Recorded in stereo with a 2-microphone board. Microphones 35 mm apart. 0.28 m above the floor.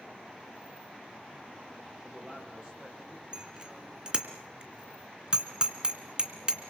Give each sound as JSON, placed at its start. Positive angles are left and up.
{"t": 2.0, "sound": "a man speaking", "side_deg": -25, "distance_m": 8.5}
{"t": 3.3, "sound": "a bicycle bell", "side_deg": -30, "distance_m": 2.5}